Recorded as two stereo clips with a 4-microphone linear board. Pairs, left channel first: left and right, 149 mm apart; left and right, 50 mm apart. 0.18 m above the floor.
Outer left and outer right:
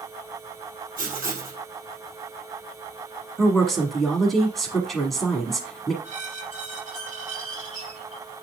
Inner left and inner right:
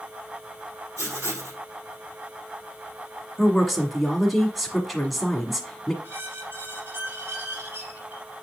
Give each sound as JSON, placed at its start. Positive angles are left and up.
{"t": 1.0, "sound": "writing", "side_deg": -65, "distance_m": 2.5}
{"t": 3.4, "sound": "a woman speaking", "side_deg": 0, "distance_m": 1.3}
{"t": 6.0, "sound": "a squeak", "side_deg": -50, "distance_m": 2.5}